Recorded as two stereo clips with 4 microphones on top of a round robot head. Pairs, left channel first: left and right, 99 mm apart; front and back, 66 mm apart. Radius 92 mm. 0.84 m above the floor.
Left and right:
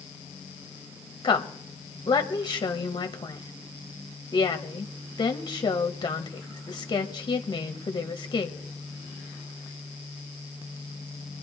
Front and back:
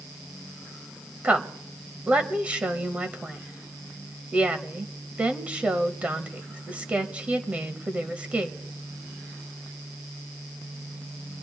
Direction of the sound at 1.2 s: 120° left.